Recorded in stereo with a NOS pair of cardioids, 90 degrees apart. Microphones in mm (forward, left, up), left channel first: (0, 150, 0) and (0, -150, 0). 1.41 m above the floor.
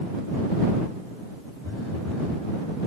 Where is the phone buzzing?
45° left.